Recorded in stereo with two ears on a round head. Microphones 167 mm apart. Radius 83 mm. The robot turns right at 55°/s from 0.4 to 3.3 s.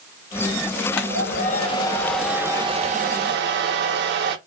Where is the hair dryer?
110° left, 0.6 m; by 4.4 s 120° right, 0.6 m.